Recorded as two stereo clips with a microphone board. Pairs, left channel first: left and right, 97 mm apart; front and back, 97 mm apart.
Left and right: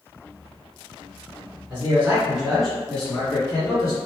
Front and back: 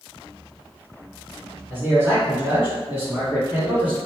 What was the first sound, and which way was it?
A man speaking, 130° right.